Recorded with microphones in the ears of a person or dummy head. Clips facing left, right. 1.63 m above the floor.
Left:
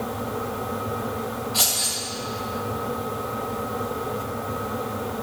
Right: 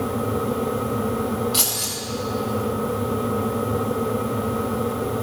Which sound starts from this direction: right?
Keys jangling, at 1.5 s.